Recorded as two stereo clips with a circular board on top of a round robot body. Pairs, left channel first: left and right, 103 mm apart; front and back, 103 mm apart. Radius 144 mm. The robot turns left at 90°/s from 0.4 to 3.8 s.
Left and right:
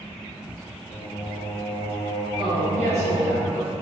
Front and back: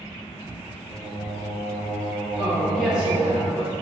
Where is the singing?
65° left, 0.5 m; by 3.4 s 160° right, 0.5 m.